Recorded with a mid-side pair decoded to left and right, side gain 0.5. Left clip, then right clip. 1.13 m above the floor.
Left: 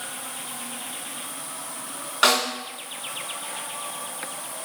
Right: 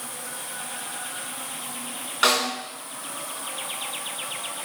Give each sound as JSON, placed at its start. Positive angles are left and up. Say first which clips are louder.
{"t": 2.2, "sound": "a snare drum", "louder": "left 1 dB", "azimuth_deg": 25, "distance_m": 3.5}